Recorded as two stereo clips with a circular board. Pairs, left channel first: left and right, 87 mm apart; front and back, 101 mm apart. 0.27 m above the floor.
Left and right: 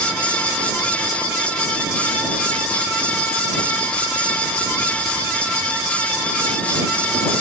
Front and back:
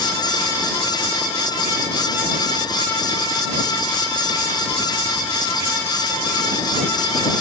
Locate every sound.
Only background noise.